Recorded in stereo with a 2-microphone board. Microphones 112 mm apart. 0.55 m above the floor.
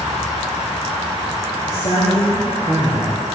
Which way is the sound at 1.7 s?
60° left (ahead or behind).